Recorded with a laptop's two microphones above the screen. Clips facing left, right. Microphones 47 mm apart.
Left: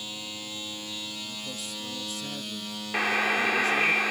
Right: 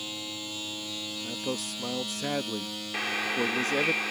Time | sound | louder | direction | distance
1.2 | a man speaking | right 4 dB | 60° right (ahead or behind) | ?
2.9 | a buzzer | left 5 dB | 25° left (ahead or behind) | ?